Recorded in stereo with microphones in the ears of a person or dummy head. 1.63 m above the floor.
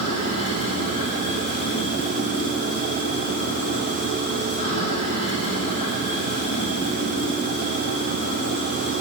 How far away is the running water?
About 2 m.